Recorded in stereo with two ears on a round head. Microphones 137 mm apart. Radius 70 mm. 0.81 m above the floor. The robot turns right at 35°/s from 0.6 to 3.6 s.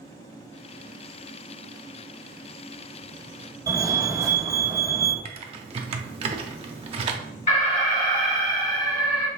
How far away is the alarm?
About 2 m.